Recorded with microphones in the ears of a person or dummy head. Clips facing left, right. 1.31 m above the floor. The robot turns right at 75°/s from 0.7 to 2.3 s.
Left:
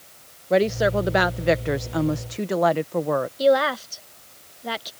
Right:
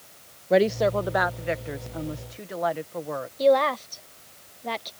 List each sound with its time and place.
0.5 s a woman speaking: straight ahead; by 3.3 s 120° left
3.4 s a woman speaking: 10° left (ahead or behind)